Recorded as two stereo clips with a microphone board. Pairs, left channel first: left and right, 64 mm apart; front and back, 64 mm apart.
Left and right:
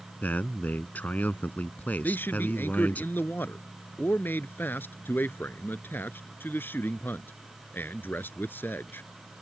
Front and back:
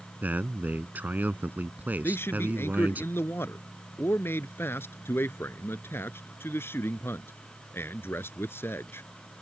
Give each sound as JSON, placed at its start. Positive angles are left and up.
{"t": 0.2, "sound": "a man speaking", "azimuth_deg": 135}
{"t": 2.0, "sound": "a man speaking", "azimuth_deg": 40}